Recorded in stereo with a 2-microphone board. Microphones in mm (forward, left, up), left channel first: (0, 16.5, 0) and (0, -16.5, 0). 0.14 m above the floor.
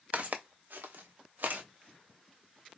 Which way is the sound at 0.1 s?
50° right (ahead or behind).